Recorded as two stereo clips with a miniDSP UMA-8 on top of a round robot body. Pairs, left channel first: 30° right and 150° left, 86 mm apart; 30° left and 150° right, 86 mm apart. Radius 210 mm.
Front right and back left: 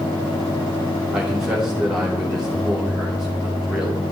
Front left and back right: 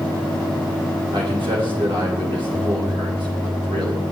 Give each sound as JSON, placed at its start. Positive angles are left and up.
{"t": 1.1, "sound": "a man speaking", "azimuth_deg": -125, "distance_m": 3.5}